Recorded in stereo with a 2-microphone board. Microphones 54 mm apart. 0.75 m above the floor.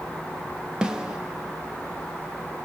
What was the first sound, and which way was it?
A snare drum, 15° right (ahead or behind).